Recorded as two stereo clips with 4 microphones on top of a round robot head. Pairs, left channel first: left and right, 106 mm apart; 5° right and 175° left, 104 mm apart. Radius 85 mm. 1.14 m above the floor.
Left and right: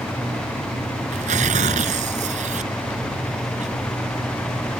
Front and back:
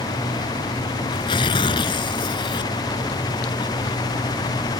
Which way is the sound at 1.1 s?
65° right.